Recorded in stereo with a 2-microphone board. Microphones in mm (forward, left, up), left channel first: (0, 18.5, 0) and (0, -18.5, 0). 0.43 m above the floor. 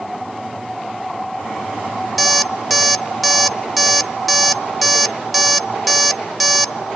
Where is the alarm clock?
Centre (ahead or behind), 0.6 m.